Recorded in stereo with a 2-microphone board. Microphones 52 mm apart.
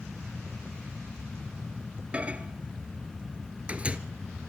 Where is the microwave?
25° right (ahead or behind), 1.2 m.